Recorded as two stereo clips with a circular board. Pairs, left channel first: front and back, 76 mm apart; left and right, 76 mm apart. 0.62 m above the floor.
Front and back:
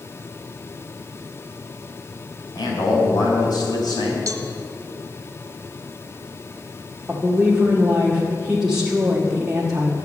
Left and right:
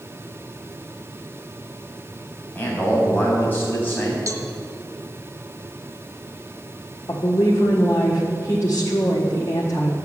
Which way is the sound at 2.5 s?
25° left.